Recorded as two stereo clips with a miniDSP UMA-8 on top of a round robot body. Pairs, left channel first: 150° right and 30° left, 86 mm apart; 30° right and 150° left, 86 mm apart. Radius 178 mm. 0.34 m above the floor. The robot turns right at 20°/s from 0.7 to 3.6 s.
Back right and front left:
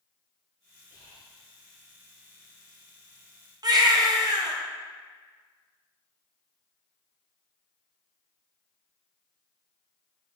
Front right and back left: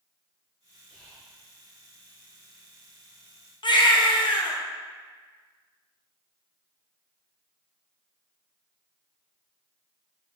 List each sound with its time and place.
0.9 s whispering: 115° right, 2.5 m; by 1.4 s 105° right, 2.5 m
3.6 s a baby crying: 5° right, 1.2 m